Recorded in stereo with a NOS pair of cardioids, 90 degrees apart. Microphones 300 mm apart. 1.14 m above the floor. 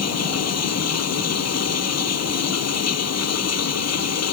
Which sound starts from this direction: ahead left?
Running water, at 0.0 s.